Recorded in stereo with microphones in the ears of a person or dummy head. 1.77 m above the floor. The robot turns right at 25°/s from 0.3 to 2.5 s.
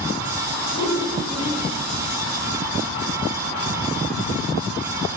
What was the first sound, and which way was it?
A whoosh, 70° left (ahead or behind).